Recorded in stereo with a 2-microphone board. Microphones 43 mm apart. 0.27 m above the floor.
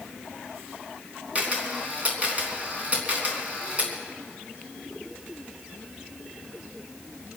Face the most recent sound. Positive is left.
turn(degrees=-30)  # may be behind; listen again after turning